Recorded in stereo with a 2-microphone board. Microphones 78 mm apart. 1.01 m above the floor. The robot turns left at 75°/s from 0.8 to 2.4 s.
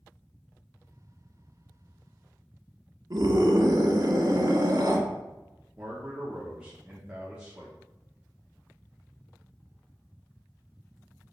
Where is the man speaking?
15° right (ahead or behind), 1.2 m.